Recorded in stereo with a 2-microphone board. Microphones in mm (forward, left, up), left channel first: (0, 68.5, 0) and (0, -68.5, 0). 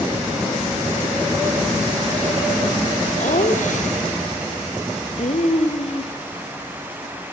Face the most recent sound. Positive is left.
turn(degrees=50)  # may be behind; listen again after turning